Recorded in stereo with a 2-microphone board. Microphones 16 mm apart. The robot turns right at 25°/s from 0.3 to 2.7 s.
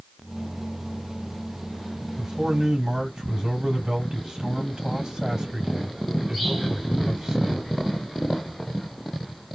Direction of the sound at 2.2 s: 65° right (ahead or behind).